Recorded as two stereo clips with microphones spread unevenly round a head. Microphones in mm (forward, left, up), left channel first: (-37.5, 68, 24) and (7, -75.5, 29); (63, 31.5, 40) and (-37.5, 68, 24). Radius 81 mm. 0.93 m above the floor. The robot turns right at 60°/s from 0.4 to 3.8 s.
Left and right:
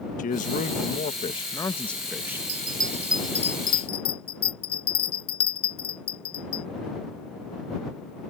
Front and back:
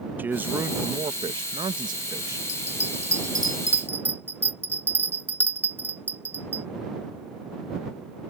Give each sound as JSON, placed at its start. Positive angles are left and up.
{"t": 0.2, "sound": "a man speaking", "azimuth_deg": 95}
{"t": 2.5, "sound": "a bell", "azimuth_deg": -25}